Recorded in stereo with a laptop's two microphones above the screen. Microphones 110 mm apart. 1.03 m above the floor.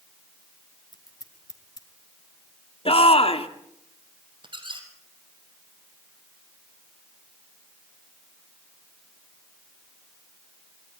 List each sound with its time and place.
0.9 s scissors: 35° left (ahead or behind), 1.9 m
2.9 s a shout: 60° left (ahead or behind), 2.0 m
4.4 s a squeak: 45° right (ahead or behind), 3.5 m